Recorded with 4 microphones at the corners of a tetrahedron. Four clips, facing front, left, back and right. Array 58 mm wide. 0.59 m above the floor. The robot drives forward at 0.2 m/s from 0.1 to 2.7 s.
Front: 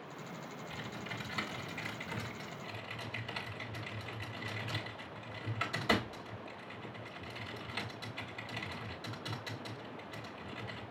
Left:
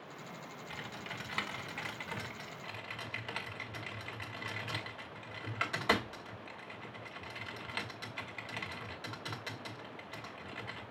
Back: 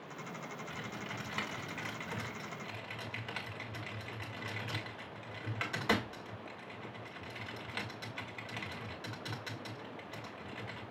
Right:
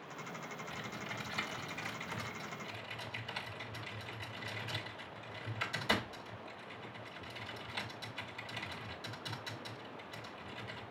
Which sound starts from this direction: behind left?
Typing on a keyboard, at 0.7 s.